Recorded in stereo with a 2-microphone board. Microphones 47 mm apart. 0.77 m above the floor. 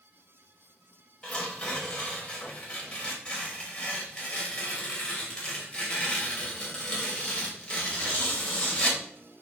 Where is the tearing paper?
20° left (ahead or behind), 3 m.